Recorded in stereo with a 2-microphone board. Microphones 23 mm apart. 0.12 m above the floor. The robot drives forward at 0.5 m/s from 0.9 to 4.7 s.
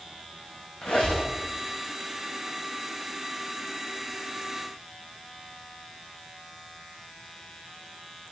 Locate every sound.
0.8 s a squeak: 65° left (ahead or behind), 2.5 m